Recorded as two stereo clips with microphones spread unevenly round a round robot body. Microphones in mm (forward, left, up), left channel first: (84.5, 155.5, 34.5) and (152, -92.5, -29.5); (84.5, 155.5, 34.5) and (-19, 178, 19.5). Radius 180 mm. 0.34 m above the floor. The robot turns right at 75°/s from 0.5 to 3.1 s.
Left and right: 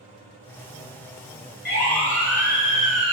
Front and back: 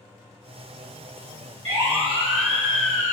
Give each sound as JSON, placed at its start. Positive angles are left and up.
{"t": 1.6, "sound": "a siren", "azimuth_deg": 180, "distance_m": 5.5}